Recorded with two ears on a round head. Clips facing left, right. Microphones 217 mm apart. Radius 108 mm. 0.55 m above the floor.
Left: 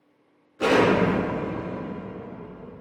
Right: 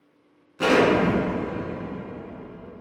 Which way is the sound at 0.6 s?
60° right (ahead or behind).